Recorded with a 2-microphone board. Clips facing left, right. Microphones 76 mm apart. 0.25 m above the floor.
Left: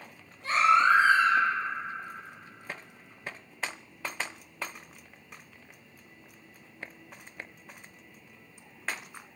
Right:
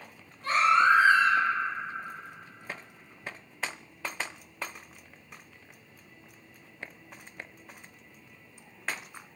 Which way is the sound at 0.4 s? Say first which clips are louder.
Even; 50° right (ahead or behind).